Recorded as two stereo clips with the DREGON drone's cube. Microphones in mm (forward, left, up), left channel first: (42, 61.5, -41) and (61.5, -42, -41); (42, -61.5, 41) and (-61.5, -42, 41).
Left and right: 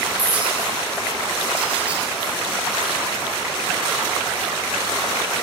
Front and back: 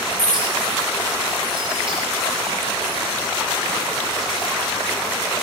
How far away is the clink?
About 7 m.